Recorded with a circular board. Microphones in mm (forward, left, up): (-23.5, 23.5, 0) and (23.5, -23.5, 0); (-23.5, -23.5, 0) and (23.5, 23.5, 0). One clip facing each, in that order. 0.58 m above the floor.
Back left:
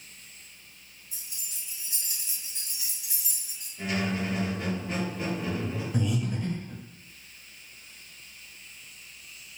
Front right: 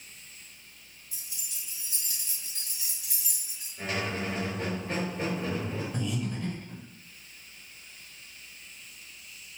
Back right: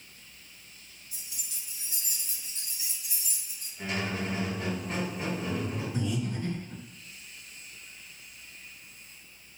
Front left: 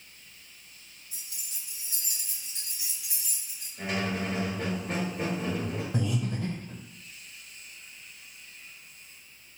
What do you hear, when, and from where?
1.1 s keys jangling: 100° left, 1.1 m; by 3.7 s 40° left, 1.6 m
3.8 s a squeak: 10° left, 2 m
5.9 s breathing: 50° left, 1.4 m